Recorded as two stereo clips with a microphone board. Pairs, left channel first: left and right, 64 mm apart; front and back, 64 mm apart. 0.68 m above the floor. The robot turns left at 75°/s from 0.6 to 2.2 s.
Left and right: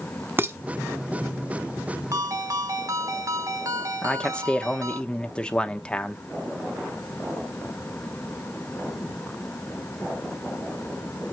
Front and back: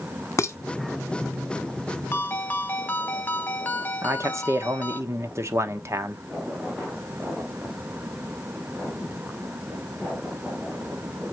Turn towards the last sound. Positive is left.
turn(degrees=160)